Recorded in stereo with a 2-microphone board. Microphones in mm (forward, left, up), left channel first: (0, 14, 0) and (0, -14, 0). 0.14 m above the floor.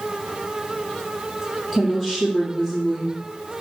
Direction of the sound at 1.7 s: 10° left (ahead or behind).